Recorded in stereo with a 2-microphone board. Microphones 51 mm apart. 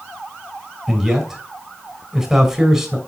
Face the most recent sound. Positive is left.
turn(degrees=-10)  # may be behind; listen again after turning